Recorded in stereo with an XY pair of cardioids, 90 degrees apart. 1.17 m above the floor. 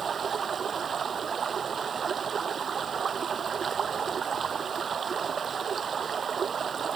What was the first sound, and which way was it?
Running water, 45° right.